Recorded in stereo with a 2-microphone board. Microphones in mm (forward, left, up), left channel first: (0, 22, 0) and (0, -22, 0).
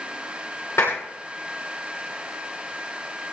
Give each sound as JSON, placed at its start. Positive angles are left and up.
{"t": 0.8, "sound": "a clap", "side_deg": 85, "distance_m": 9.0}